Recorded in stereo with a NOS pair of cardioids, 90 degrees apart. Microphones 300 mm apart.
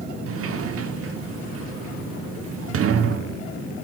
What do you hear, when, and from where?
0.3 s a sliding door: 50° right, 1.0 m